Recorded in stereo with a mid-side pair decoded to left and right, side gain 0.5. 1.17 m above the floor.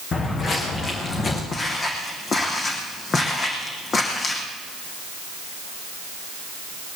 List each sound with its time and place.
0.1 s footsteps: 45° left, 5 m; by 1.4 s 40° left, 5 m
1.5 s footsteps: 40° left, 4 m